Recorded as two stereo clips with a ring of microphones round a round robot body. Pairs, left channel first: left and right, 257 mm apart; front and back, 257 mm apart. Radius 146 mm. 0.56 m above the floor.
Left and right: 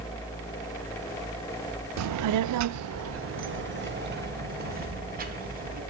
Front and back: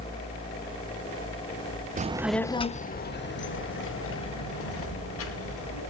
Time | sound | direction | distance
2.0 | a child speaking | 120° right | 0.6 m